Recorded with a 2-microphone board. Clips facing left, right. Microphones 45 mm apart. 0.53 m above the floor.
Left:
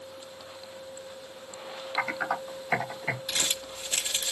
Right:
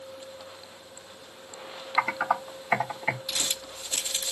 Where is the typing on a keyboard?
25° right (ahead or behind), 2.5 m.